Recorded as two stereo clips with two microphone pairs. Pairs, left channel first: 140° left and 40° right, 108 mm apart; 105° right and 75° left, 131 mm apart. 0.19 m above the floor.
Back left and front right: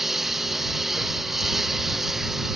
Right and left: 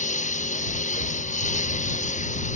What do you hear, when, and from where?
0.0 s a lawn mower: 130° right